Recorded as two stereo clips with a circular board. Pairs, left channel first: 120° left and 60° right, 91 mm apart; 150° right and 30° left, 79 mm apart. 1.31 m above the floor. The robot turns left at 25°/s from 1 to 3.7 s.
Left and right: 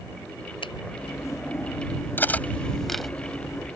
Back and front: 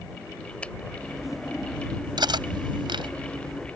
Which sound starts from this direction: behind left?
A finger snap, at 0.6 s.